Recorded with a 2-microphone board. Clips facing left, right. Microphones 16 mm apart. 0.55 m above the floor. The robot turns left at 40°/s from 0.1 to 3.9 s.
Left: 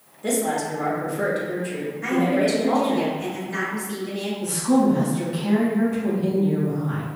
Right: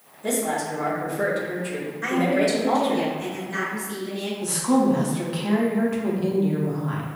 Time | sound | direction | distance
0.2 | a woman speaking | 50° left | 1.3 m
2.0 | a woman speaking | 100° right | 1.8 m
4.4 | a woman speaking | 30° right (ahead or behind) | 0.7 m